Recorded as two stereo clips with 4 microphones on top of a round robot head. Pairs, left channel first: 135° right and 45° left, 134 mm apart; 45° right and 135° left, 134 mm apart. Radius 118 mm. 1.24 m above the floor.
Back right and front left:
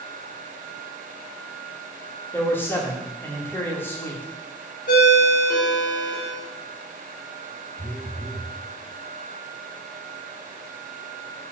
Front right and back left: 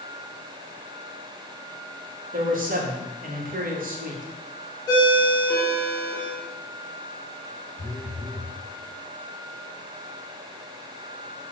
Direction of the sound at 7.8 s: 110° right.